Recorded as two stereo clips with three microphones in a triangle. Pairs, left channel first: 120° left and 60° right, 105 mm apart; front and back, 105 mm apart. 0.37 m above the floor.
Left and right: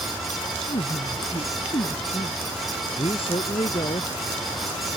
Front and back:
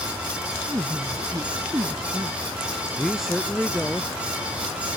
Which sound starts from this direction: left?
A man speaking, at 3.0 s.